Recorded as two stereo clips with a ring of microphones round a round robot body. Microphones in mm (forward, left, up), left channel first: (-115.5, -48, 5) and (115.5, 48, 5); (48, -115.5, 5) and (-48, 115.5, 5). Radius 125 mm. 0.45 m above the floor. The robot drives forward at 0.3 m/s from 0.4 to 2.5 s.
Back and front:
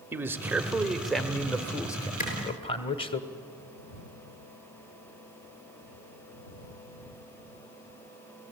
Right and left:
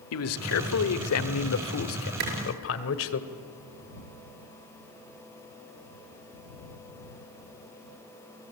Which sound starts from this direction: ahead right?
A man speaking, at 0.1 s.